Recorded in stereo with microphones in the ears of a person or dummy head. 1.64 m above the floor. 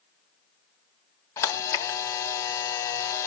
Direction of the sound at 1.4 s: 20° left (ahead or behind).